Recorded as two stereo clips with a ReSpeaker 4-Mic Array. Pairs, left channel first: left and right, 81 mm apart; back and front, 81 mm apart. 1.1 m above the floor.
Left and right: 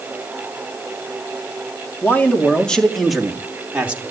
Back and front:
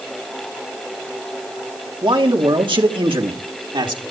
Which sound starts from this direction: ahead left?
A man speaking, at 2.0 s.